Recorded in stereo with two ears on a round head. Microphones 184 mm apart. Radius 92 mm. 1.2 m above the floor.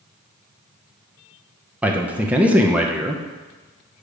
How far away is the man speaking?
About 0.6 m.